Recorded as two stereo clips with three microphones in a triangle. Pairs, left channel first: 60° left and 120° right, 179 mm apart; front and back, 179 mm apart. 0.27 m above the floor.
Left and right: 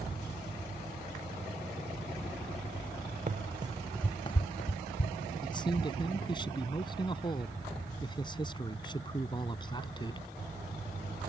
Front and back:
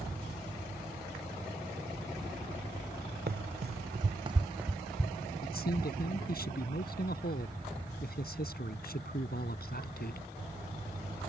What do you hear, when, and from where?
3.3 s running footsteps: 160° right; by 5.3 s 80° left
5.4 s a man speaking: straight ahead